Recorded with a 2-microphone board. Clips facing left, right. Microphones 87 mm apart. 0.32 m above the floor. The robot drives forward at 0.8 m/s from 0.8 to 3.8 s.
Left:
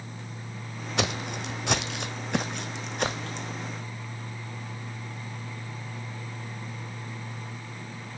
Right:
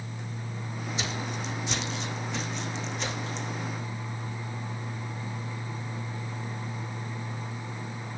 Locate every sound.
1.0 s footsteps: 70° left (ahead or behind), 0.7 m; by 3.5 s 55° left (ahead or behind), 1.2 m